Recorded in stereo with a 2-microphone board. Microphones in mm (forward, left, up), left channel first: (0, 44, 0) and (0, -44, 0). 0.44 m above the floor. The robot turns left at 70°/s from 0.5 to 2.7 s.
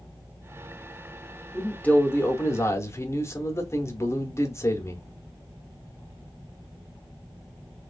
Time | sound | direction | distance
1.5 | a man speaking | 165° left | 0.8 m